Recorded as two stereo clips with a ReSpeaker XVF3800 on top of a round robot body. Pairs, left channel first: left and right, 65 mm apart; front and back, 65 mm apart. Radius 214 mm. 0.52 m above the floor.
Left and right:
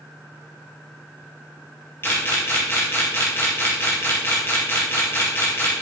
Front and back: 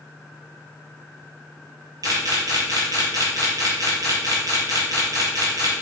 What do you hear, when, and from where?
2.0 s a camera shutter: 150° left, 3.5 m